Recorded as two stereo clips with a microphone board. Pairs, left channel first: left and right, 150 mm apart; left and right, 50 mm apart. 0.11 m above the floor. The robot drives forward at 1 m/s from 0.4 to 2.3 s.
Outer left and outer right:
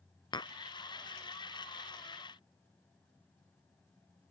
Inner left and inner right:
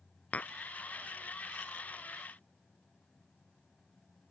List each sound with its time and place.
0.3 s tapping: 30° left (ahead or behind)